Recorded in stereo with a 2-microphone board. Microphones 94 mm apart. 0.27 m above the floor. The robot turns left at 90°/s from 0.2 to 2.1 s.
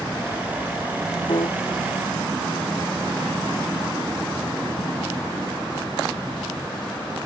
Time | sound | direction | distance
1.3 | a piano | 55° left (ahead or behind) | ?